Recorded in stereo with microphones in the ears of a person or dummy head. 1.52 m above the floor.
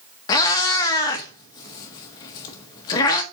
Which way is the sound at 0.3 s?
25° left (ahead or behind).